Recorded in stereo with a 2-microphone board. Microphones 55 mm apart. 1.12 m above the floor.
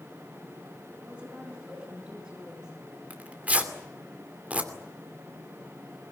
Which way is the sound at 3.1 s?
30° right (ahead or behind).